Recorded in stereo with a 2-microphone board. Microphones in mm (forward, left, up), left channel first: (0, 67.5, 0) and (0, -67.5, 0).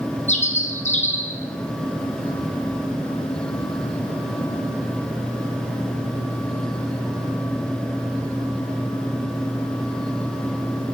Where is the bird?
60° left (ahead or behind), 3.5 m.